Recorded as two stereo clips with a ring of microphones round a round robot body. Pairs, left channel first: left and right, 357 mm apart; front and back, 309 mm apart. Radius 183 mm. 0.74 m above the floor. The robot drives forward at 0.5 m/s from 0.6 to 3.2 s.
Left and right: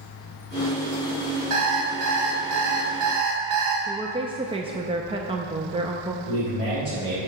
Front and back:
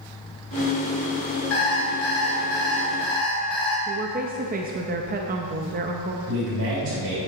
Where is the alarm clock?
55° right, 2 m; by 3.8 s 75° right, 1.8 m.